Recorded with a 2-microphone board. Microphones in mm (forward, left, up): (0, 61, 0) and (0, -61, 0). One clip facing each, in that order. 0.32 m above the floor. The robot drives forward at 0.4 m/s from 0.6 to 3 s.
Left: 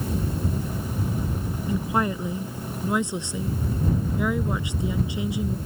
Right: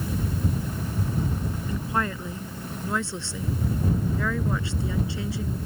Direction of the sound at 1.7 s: 15° left (ahead or behind).